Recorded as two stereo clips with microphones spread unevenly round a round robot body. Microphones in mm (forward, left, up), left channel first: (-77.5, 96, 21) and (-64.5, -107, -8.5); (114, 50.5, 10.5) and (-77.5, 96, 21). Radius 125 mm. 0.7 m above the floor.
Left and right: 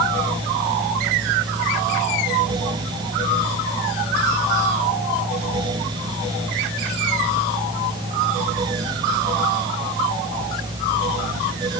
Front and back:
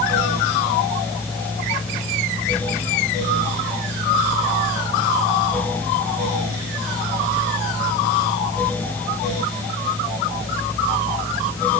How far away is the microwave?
No microwave in this recording.